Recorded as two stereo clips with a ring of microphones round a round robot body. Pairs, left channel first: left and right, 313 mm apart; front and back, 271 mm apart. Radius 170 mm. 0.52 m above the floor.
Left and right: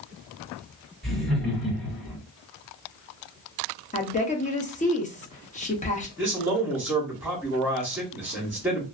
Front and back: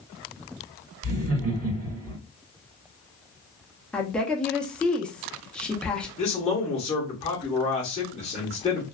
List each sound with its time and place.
1.0 s laughter: straight behind, 1.6 m
3.9 s a woman speaking: 80° left, 0.7 m
6.2 s a man speaking: 15° right, 0.9 m